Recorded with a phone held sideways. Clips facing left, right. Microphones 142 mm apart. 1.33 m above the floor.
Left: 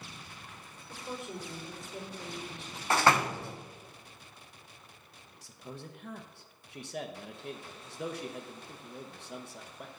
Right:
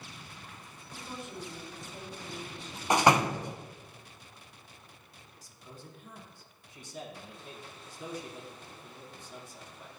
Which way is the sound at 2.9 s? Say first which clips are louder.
Right 2 dB; 15° right (ahead or behind).